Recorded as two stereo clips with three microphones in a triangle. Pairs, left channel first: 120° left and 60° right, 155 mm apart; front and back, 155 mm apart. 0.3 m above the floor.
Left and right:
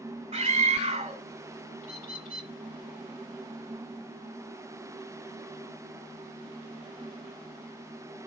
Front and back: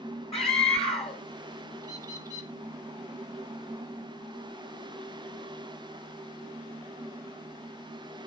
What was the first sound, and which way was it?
A scream, 30° right.